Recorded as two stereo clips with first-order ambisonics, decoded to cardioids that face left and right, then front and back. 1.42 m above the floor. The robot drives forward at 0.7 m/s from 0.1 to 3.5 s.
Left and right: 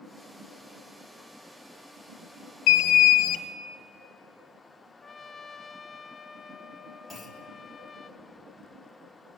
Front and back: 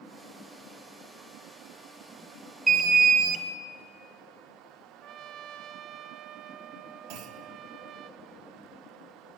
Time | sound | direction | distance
2.7 | an alarm | 110° left | 1.0 m
5.0 | a trumpet | 175° left | 0.7 m
7.1 | a clunk | straight behind | 1.8 m